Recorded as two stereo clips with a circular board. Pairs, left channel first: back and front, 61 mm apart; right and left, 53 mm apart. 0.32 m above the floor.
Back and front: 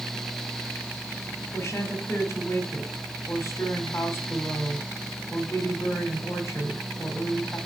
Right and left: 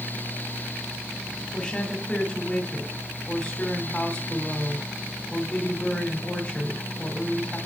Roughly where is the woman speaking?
Behind.